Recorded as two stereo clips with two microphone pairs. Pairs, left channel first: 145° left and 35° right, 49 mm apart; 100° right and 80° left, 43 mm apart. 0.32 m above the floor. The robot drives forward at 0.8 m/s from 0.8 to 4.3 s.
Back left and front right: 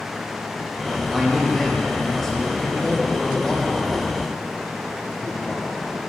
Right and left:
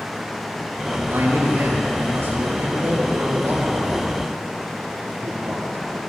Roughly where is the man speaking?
Ahead left.